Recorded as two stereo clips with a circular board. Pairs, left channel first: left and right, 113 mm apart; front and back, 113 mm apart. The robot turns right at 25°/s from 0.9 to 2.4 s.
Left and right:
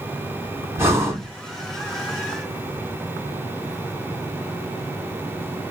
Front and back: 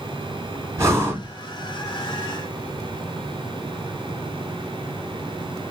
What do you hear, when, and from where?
0.8 s breathing: 140° right, 1.4 m; by 1.3 s 130° right, 1.4 m